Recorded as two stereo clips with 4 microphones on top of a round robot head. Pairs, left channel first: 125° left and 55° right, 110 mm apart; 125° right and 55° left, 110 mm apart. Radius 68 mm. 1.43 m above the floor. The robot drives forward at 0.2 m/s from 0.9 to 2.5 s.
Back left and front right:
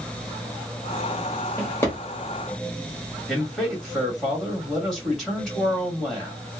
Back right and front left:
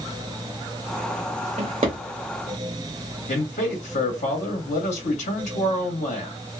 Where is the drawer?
65° left, 1.0 m; by 2.0 s 70° left, 1.0 m.